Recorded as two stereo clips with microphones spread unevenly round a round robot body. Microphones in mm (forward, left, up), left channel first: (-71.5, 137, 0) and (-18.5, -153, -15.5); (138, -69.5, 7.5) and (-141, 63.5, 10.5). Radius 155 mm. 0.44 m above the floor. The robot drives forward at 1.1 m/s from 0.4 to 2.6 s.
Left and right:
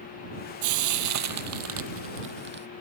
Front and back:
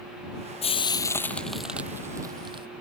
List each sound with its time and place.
0.6 s frying: 95° right; by 2.7 s 130° right